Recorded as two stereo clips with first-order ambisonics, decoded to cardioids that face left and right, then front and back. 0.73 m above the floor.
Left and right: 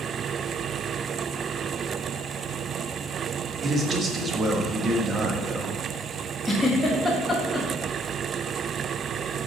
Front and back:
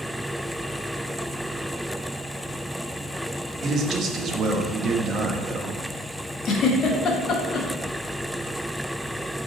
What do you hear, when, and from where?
3.6 s a man speaking: 145° right, 0.5 m
6.5 s a giggle: 15° left, 0.7 m